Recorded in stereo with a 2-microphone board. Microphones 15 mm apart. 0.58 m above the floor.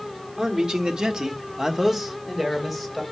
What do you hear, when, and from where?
0.4 s a man speaking: 40° right (ahead or behind), 1.6 m; by 3.0 s 10° right (ahead or behind), 3 m